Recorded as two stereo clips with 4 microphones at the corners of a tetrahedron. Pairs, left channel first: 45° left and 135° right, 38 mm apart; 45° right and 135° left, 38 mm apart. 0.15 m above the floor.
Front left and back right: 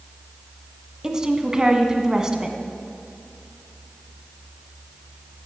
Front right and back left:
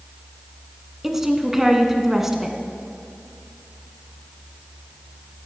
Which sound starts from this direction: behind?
A woman speaking, at 1.0 s.